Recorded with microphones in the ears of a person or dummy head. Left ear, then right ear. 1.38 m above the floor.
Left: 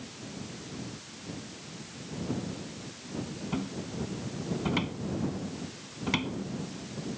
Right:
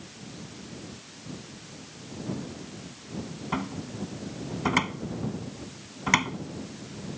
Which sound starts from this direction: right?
A cupboard door, at 3.5 s.